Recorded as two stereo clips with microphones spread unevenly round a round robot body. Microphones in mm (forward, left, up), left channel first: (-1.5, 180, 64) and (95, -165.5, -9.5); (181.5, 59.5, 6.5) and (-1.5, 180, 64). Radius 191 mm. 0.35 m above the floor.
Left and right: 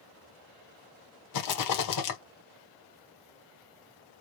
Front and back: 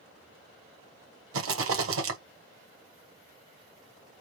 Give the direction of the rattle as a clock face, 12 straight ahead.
7 o'clock.